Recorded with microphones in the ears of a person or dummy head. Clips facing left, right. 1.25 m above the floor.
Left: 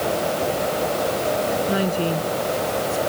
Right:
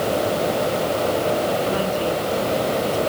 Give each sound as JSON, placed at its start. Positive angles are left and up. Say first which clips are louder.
{"t": 1.7, "sound": "a woman speaking", "louder": "even", "side_deg": 20}